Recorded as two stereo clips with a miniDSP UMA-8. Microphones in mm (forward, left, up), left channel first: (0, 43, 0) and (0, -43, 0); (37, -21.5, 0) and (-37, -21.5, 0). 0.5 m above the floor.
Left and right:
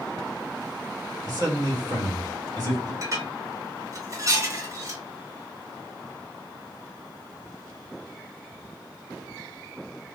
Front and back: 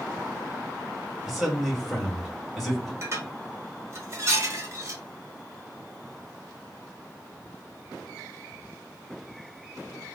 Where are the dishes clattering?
135° right, 0.9 m.